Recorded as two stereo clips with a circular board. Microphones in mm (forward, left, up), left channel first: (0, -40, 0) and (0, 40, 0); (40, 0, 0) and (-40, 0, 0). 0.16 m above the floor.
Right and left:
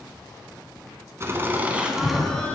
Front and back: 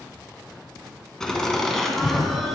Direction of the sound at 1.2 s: 80° left.